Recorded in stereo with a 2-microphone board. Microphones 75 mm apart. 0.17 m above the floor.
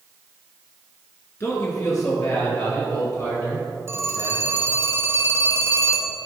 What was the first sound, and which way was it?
A man speaking, 40° left (ahead or behind).